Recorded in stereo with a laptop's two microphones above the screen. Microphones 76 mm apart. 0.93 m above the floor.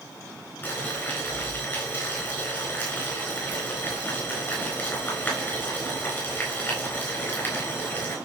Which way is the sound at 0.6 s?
30° left (ahead or behind).